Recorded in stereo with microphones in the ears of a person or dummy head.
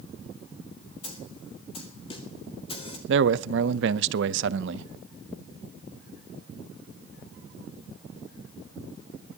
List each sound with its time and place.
1.0 s a snare drum: 30° left (ahead or behind), 1.9 m
3.1 s a man speaking: 75° right (ahead or behind), 0.6 m